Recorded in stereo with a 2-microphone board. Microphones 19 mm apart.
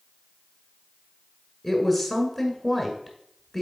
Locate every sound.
1.6 s a woman speaking: 5° right (ahead or behind), 1.1 m